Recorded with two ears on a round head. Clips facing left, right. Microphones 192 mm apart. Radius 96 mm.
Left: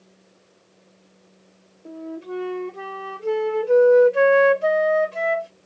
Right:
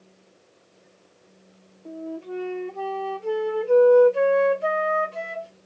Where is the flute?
20° left (ahead or behind), 1.0 m.